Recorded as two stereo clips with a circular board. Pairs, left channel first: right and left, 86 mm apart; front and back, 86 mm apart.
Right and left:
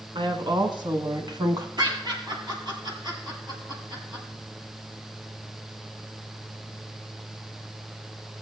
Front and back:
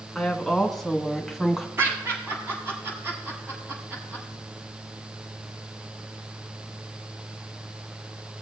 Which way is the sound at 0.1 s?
85° left.